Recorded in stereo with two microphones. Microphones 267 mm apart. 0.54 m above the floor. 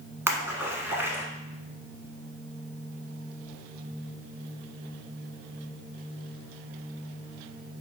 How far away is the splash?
About 1.0 m.